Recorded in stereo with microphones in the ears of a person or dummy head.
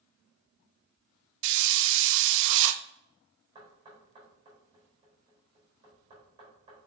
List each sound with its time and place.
1.4 s a hiss: 60° right (ahead or behind), 0.6 m
3.5 s knocking: 35° right (ahead or behind), 3.5 m